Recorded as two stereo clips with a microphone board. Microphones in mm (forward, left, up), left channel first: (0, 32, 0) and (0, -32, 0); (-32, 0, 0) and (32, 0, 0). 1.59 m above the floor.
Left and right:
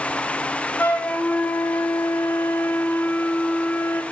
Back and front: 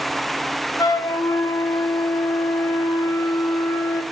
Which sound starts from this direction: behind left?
A flute, at 0.8 s.